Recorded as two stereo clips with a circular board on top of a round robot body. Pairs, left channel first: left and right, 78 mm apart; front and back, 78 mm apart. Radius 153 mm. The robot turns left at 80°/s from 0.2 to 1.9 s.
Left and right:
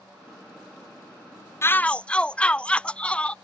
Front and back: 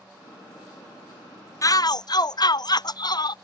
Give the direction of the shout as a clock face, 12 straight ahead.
11 o'clock.